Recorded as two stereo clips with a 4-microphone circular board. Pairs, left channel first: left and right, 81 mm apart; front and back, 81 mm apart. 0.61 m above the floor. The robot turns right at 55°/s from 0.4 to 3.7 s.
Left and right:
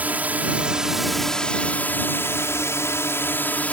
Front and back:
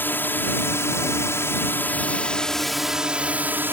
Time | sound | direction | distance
0.0 | a drone | 40° right | ?